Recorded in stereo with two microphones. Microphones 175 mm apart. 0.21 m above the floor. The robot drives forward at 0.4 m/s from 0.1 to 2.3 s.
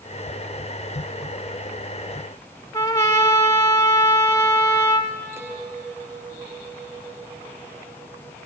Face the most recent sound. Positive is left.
turn(degrees=-15)  # may be behind; listen again after turning